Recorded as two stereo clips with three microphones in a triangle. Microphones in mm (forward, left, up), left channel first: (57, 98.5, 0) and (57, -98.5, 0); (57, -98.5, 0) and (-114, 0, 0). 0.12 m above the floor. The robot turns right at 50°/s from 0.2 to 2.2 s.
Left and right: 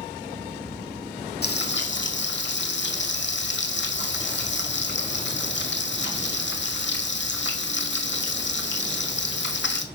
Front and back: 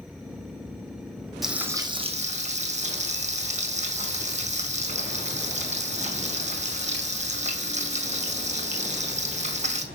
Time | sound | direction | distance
1.4 | frying | 60° left | 1.7 m